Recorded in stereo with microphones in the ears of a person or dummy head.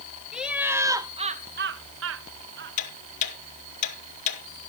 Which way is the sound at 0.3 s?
5° right (ahead or behind).